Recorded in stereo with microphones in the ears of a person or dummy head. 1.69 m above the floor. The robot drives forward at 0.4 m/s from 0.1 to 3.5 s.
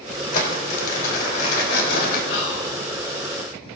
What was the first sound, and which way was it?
Crumpling, 45° left (ahead or behind).